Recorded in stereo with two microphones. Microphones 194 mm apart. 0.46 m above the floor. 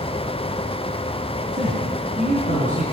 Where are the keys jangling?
No keys jangling in this recording.